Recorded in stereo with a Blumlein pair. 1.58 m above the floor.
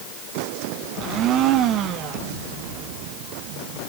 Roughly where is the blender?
Ahead right.